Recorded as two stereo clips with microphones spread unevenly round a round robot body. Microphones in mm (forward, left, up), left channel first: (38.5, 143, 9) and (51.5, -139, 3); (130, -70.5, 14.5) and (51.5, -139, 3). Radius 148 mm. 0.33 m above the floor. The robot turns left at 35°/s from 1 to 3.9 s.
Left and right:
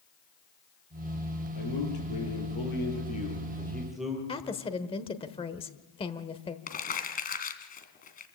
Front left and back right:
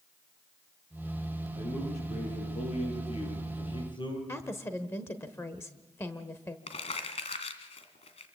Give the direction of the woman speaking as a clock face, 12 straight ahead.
10 o'clock.